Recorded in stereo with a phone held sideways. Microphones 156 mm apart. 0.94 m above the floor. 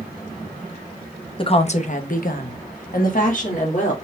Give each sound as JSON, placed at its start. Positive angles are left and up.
{"t": 1.4, "sound": "a woman speaking", "side_deg": 35, "distance_m": 0.9}